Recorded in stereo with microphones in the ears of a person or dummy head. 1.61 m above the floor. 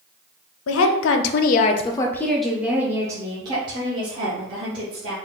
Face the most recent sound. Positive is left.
turn(degrees=-35)  # may be behind; listen again after turning